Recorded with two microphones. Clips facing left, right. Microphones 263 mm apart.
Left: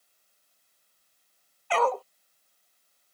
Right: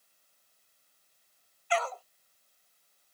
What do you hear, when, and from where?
1.7 s a dog barking: 70° left (ahead or behind)